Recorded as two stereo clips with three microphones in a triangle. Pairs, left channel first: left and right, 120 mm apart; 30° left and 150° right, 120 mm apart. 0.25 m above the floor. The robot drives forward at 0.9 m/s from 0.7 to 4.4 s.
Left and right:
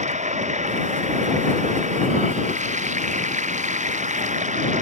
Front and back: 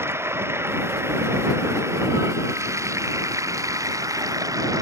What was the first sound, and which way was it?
Running water, 80° right.